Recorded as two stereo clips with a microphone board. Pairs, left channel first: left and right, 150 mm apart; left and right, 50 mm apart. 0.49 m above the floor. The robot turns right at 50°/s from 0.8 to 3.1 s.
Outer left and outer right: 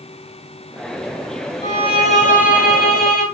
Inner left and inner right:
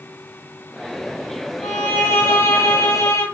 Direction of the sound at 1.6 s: 25° left.